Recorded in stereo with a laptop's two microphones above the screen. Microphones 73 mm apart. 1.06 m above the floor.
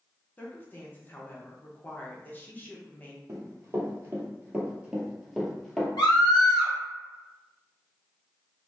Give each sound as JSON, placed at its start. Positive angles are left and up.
{"t": 0.4, "sound": "a woman speaking", "side_deg": 25, "distance_m": 0.6}
{"t": 3.3, "sound": "running footsteps", "side_deg": -45, "distance_m": 1.5}
{"t": 6.0, "sound": "a scream", "side_deg": 85, "distance_m": 1.4}